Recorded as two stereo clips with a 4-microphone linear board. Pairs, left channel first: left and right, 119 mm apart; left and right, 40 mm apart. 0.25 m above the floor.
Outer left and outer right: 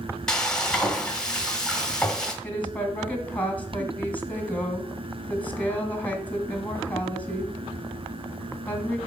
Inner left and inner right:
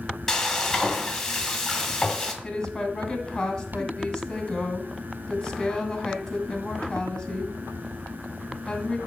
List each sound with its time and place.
0.3 s frying: 5° left (ahead or behind), 1.6 m
2.4 s a woman speaking: 15° left (ahead or behind), 1.9 m